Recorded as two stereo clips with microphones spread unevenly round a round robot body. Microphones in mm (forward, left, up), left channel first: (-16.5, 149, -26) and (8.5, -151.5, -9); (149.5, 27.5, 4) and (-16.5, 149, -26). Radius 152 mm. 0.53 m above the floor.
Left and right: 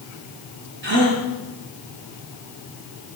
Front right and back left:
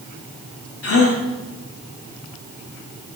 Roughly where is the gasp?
Ahead right.